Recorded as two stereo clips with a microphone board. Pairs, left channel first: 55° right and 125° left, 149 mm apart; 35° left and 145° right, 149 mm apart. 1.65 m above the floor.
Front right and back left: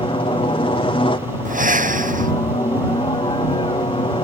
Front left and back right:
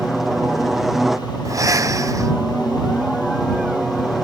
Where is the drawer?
I don't hear a drawer.